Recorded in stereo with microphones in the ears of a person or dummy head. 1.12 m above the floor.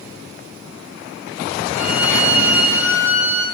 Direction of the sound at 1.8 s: 10° right (ahead or behind).